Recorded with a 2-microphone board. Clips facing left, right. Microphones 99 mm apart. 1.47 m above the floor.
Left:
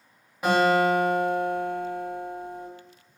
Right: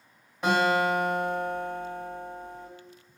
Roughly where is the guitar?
Centre.